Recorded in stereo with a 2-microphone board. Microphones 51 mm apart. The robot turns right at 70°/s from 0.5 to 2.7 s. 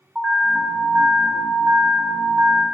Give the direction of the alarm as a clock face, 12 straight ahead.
6 o'clock.